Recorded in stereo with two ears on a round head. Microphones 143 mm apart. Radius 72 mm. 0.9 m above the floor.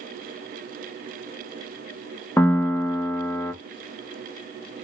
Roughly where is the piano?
Centre.